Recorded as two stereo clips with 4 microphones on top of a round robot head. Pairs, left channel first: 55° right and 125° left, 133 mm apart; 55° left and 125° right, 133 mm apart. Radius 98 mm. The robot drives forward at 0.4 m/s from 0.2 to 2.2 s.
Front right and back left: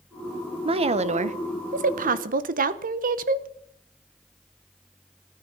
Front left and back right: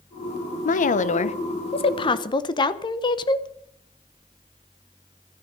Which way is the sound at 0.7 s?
75° left.